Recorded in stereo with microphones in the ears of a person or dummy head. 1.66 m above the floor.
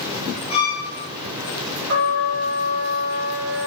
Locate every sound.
0.5 s a violin: 25° left (ahead or behind), 1.7 m
1.9 s a trumpet: 45° right (ahead or behind), 1.0 m